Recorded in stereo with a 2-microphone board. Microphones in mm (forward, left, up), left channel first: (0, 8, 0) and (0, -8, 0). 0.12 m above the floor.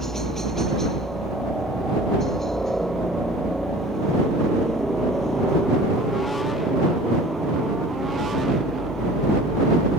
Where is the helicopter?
25° left (ahead or behind).